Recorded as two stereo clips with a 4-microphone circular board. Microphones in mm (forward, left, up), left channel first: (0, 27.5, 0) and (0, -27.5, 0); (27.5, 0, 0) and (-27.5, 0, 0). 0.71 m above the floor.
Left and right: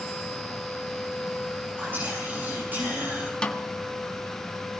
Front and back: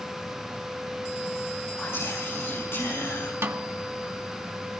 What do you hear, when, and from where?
1.8 s whispering: 40° right, 3.5 m
3.4 s a snare drum: 155° left, 1.1 m